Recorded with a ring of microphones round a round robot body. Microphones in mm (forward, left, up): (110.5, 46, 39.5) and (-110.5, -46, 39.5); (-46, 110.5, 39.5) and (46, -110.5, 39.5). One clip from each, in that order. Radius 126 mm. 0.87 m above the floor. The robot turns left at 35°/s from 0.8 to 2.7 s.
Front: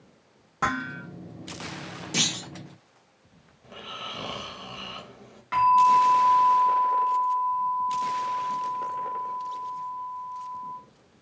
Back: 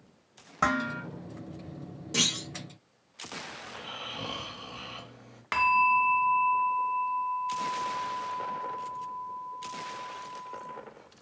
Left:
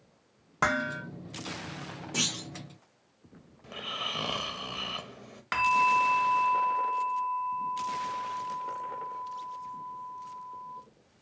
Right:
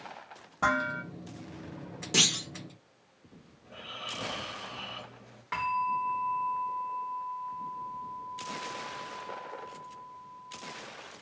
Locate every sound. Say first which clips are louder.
0.6 s dishes clattering: even, even; 125° left, 0.9 m; by 1.0 s 120° left, 0.9 m
2.1 s a clunk: front 1 dB, right 6 dB; 55° right, 0.6 m; by 2.5 s 70° right, 0.6 m
3.6 s snoring: front 7 dB, left 6 dB; 105° left, 0.5 m
5.5 s a bell: front 5 dB, left 6 dB; 160° left, 0.5 m